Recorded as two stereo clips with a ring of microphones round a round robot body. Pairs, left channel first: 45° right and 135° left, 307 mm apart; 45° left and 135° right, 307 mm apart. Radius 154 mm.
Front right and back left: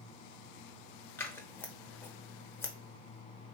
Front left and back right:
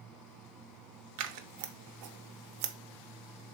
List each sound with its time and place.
1.2 s scissors: 125° right, 0.5 m